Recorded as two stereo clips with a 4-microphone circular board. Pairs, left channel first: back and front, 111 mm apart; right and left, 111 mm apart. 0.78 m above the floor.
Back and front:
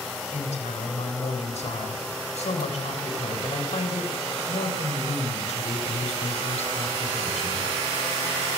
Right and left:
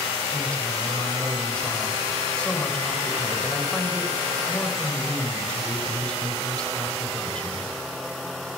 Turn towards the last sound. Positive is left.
turn(degrees=-170)